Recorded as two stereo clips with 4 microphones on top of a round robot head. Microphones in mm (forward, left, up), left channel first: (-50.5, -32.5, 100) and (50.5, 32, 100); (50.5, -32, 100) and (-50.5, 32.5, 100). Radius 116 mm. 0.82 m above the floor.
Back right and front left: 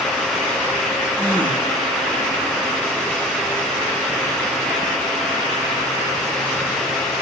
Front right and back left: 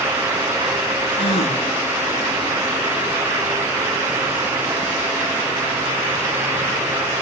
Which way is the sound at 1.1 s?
70° right.